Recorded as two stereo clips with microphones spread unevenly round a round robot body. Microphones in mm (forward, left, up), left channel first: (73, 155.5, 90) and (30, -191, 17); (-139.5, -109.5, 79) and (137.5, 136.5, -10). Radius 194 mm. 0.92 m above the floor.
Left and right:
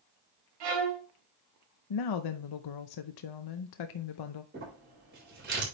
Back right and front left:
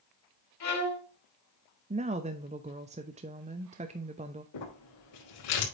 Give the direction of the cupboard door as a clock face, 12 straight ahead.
No cupboard door in this recording.